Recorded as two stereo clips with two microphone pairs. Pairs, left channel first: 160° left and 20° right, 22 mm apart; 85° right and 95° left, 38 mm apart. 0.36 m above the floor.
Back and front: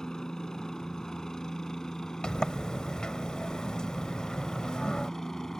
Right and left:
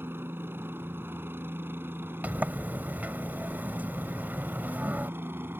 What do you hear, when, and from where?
0.0 s a helicopter: 100° left; by 5.6 s 95° left
2.2 s a sliding door: 120° left